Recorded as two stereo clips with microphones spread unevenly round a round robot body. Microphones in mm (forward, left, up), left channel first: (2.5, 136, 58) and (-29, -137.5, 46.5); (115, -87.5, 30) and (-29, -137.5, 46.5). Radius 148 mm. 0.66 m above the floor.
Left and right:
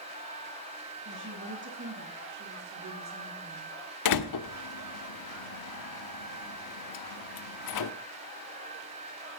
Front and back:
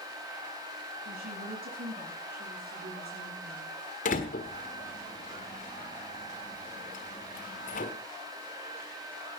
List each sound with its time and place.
1.1 s a woman speaking: 145° right, 8.5 m; by 3.8 s 155° right, 9 m
4.0 s a door slam: 65° left, 1.2 m